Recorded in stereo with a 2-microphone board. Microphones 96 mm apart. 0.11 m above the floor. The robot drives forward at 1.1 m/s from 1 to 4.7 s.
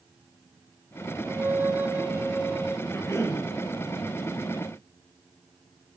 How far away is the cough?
About 2 m.